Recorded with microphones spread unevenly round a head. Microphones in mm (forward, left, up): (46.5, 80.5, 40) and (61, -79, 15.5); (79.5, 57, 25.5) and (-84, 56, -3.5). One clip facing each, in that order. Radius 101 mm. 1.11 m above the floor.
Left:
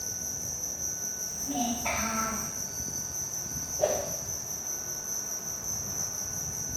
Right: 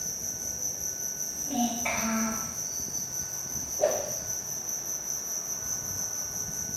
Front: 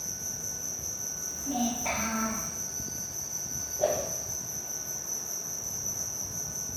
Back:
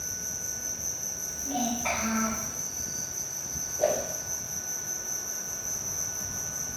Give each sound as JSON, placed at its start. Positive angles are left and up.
{"t": 0.0, "sound": "an insect", "azimuth_deg": -90, "distance_m": 1.3}
{"t": 1.3, "sound": "a child speaking", "azimuth_deg": -140, "distance_m": 1.9}
{"t": 3.8, "sound": "a whoosh", "azimuth_deg": -145, "distance_m": 0.5}